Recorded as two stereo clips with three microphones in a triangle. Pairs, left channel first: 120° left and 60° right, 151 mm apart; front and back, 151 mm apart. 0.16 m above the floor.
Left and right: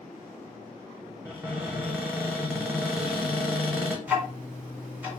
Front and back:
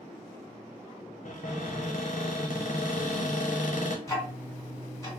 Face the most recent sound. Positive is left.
turn(degrees=5)